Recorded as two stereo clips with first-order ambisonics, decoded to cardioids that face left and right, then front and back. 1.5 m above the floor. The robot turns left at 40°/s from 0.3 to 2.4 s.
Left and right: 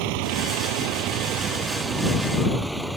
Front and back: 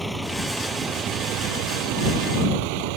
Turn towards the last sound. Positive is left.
turn(degrees=-175)